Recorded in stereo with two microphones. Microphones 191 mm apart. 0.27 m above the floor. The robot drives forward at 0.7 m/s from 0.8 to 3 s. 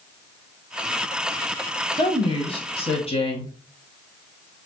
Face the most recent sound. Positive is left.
turn(degrees=35)  # may be behind; listen again after turning